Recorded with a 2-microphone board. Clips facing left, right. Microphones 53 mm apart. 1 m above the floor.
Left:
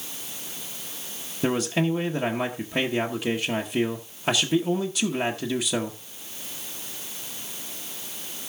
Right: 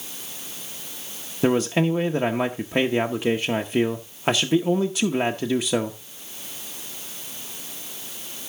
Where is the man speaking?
25° right (ahead or behind), 0.9 m.